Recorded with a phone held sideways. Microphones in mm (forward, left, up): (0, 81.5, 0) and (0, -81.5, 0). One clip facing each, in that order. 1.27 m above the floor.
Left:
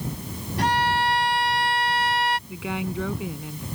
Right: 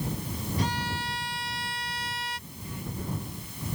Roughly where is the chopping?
I don't hear chopping.